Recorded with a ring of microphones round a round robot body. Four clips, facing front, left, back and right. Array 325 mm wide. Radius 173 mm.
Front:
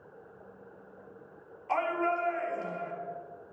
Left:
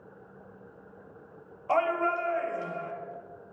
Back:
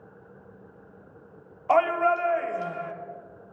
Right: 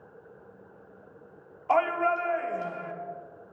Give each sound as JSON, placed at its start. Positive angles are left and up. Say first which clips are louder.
{"t": 1.7, "sound": "a shout", "louder": "right 2 dB, back 8 dB", "azimuth_deg": 180, "distance_m": 2.5}